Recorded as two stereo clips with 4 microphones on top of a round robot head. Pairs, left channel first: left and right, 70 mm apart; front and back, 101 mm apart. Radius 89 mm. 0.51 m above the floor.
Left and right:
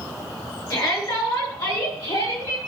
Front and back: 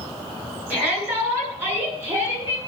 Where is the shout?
110° left, 8.5 m; by 2.6 s 115° left, 7 m.